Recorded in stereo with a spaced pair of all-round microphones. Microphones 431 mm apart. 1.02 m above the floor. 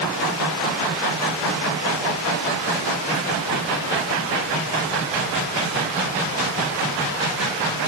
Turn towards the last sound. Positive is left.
No sound to turn to.